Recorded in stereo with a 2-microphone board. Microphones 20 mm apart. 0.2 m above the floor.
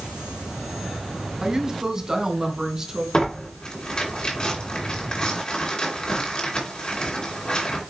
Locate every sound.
1.4 s a woman speaking: 30° right (ahead or behind), 1.4 m; by 3.0 s 25° right (ahead or behind), 2.5 m
3.1 s tearing paper: 45° left (ahead or behind), 2.5 m